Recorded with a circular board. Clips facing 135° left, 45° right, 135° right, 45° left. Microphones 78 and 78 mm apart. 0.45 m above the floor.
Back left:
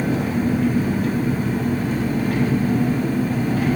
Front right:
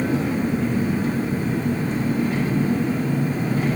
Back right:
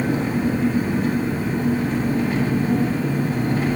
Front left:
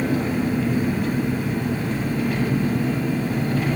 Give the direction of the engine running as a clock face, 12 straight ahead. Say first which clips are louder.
Back left 1 dB, back right 1 dB; 7 o'clock.